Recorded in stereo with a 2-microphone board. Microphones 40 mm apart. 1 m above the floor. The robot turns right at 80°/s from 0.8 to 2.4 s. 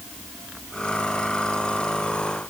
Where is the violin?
I don't hear a violin.